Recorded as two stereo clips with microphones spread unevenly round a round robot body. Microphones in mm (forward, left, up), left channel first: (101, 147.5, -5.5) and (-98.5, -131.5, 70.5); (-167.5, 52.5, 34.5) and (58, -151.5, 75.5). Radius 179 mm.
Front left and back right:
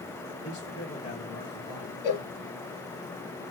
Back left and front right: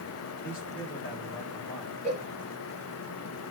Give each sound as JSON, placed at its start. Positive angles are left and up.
{"t": 0.4, "sound": "a man speaking", "azimuth_deg": 115, "distance_m": 2.5}
{"t": 2.0, "sound": "a cowbell", "azimuth_deg": 65, "distance_m": 0.9}